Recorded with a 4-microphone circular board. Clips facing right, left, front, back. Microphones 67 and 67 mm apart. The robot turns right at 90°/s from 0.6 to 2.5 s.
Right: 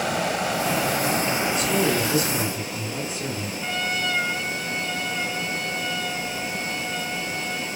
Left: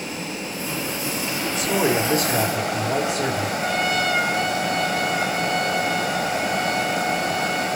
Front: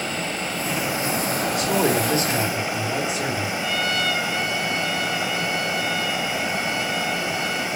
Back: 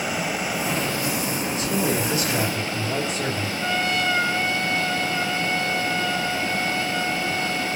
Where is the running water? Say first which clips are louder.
Right 6 dB, back 1 dB; 95° right, 2 m; by 7.8 s 75° left, 2 m.